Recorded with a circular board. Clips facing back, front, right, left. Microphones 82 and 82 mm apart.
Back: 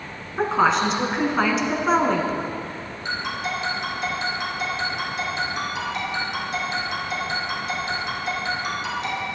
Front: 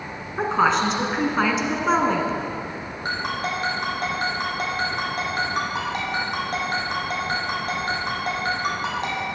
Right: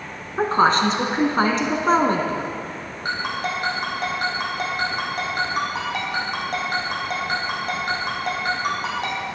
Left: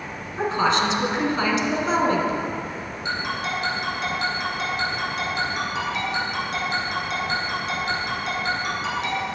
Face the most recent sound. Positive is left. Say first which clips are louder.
# front 2 dB, right 2 dB
turn(degrees=-45)